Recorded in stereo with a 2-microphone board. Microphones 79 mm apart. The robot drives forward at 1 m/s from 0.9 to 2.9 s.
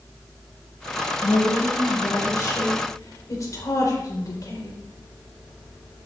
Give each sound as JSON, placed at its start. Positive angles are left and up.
{"t": 1.2, "sound": "a woman speaking", "side_deg": 35, "distance_m": 5.0}